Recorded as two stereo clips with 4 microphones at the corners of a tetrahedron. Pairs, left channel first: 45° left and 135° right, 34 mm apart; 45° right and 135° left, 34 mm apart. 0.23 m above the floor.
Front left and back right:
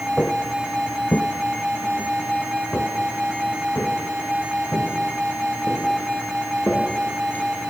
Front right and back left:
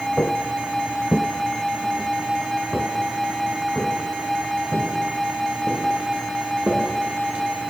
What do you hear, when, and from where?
0.2 s footsteps: 25° right, 0.8 m; by 7.4 s 90° left, 4.5 m